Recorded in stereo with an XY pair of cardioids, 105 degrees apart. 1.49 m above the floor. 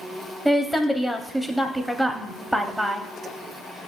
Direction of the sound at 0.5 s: Straight ahead.